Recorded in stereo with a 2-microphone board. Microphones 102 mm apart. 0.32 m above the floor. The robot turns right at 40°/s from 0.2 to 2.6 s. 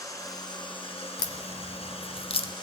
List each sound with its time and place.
0.0 s running water: 35° left, 1.9 m; by 2.6 s 130° left, 1.9 m
1.2 s a crack: 45° left (ahead or behind), 0.6 m; by 2.5 s 60° left (ahead or behind), 0.6 m